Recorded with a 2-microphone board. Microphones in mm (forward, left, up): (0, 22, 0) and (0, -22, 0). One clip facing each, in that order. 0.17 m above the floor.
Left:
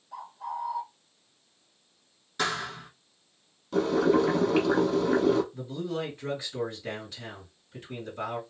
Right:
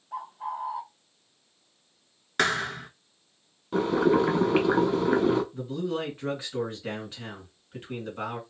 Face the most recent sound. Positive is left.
turn(degrees=-35)  # may be behind; listen again after turning